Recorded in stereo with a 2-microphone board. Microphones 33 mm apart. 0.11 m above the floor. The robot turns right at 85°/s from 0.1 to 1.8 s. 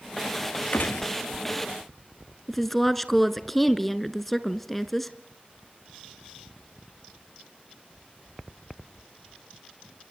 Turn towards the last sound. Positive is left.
turn(degrees=5)  # may be behind; listen again after turning